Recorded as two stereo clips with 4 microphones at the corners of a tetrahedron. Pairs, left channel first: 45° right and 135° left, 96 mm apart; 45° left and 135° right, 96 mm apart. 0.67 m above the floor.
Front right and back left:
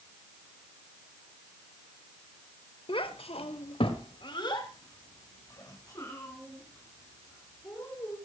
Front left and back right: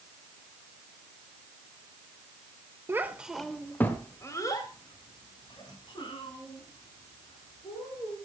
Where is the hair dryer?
I don't hear a hair dryer.